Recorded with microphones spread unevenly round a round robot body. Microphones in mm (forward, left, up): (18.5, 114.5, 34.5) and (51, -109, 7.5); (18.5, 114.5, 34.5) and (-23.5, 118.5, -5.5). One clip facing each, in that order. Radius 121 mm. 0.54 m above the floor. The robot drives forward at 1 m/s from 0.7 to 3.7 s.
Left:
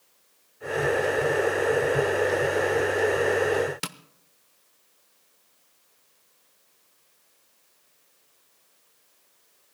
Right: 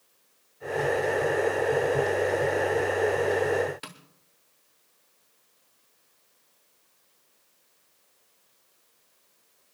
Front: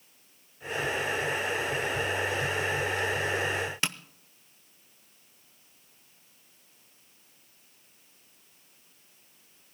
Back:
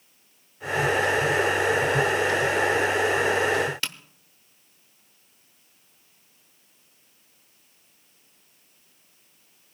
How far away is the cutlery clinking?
No cutlery clinking in this recording.